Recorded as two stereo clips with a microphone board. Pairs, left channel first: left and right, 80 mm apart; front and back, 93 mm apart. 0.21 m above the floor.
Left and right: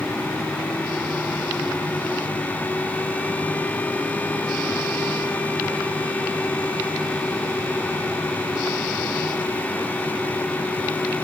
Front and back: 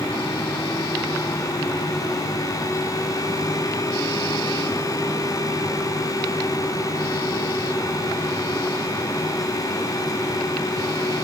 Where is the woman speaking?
I don't hear a woman speaking.